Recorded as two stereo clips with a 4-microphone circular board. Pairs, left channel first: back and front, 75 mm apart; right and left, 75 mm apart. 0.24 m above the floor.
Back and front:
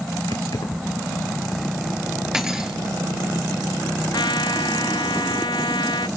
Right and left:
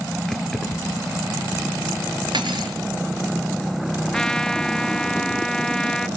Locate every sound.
0.3 s keys jangling: 175° right, 3 m
2.3 s cutlery clinking: 85° left, 2.5 m
4.1 s a trumpet: 170° right, 0.5 m